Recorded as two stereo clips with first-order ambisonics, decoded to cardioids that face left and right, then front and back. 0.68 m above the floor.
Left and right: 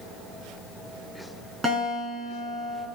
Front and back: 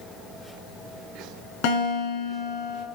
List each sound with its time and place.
1.6 s a guitar: 10° right, 6.5 m